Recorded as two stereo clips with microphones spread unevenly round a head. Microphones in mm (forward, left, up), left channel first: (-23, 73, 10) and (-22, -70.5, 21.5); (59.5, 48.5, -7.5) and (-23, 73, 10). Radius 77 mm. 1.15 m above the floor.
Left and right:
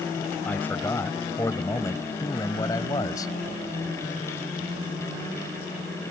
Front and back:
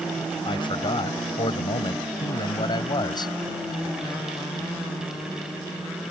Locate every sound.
0.5 s a man speaking: 10° left; by 3.3 s 20° left